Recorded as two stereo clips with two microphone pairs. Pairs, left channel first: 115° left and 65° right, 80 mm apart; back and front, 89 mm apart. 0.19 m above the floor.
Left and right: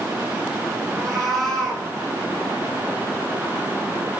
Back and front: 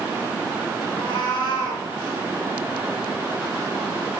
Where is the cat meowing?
155° right, 4 m.